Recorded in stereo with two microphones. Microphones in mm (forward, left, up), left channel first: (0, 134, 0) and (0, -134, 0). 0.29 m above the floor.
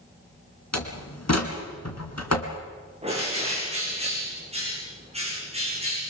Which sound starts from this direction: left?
A door slam, at 0.7 s.